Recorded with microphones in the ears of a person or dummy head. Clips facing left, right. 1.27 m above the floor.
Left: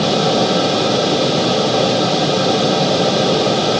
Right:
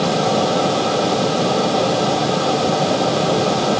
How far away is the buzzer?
I don't hear a buzzer.